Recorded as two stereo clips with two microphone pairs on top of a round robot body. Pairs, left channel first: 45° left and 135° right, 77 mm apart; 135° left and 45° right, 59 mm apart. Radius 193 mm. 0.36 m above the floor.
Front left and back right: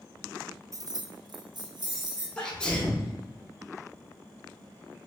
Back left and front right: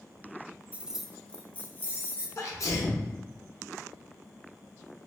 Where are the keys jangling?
100° right, 0.5 m; by 2.3 s 170° right, 1.2 m.